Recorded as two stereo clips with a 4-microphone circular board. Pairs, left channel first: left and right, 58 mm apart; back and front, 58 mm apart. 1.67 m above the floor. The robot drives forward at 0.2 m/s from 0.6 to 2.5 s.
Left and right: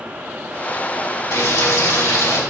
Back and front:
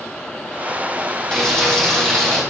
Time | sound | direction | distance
1.3 | frying | 100° left | 2.5 m